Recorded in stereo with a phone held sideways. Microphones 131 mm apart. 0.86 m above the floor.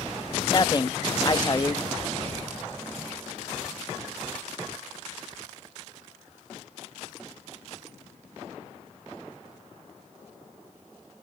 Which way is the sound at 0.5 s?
35° left (ahead or behind).